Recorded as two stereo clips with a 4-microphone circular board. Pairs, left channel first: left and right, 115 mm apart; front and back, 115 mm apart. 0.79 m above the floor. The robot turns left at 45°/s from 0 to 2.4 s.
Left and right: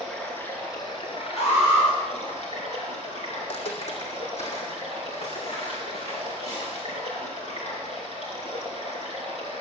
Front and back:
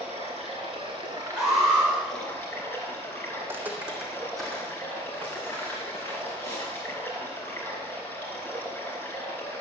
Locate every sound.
0.0 s running water: straight behind, 3 m; by 9.6 s 75° left, 3 m
1.4 s an alarm: 100° left, 4.5 m; by 1.9 s 75° left, 4.5 m
3.4 s footsteps: 115° left, 2 m; by 7.0 s 65° left, 6.5 m